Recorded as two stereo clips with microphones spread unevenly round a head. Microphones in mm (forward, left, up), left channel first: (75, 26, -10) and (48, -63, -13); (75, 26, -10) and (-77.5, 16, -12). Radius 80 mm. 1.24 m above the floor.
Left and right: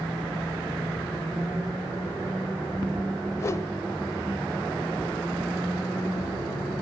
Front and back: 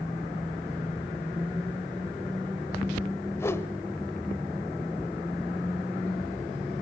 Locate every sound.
3.4 s a whoosh: 60° left, 1.1 m